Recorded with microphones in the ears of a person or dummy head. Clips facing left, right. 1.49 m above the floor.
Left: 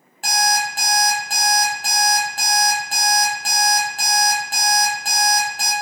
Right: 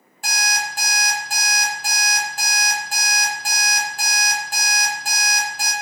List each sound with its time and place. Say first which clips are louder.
0.2 s an alarm clock: left 7 dB; 50° left (ahead or behind), 1.4 m